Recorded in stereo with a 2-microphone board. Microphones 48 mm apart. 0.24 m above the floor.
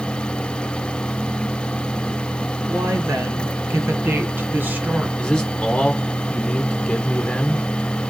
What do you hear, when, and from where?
2.7 s a woman speaking: 65° right (ahead or behind), 3.5 m; by 5.1 s 25° right (ahead or behind), 2.5 m
5.2 s a man speaking: 20° left (ahead or behind), 2.5 m